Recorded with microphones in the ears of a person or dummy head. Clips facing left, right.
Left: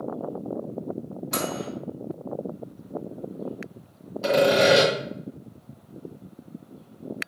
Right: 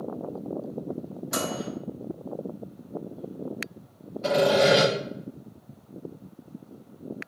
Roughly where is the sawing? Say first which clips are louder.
Left 2 dB; left.